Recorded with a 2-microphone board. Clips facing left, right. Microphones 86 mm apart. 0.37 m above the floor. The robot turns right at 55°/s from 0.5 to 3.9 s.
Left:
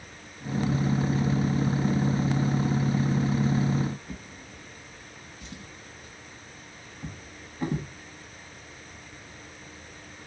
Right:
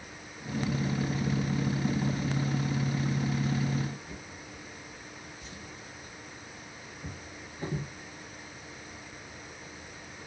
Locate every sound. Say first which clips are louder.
4.1 s a drawer: left 2 dB; 75° left (ahead or behind), 1.2 m